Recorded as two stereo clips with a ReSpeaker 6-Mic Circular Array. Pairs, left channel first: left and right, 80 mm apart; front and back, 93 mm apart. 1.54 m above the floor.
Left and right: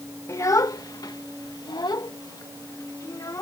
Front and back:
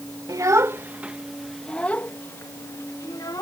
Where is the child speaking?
135° left; by 3.4 s 45° left.